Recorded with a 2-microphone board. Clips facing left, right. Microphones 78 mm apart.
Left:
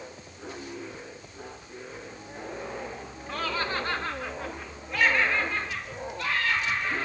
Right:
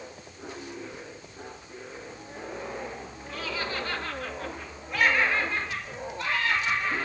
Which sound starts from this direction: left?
Laughter, at 3.3 s.